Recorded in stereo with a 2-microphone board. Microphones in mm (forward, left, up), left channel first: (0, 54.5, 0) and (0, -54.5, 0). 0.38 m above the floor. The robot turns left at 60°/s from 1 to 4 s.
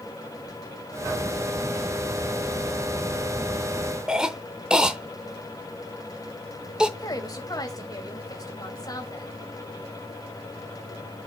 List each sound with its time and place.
4.1 s a cough: 5° right (ahead or behind), 0.8 m
7.0 s a woman speaking: 35° left (ahead or behind), 2 m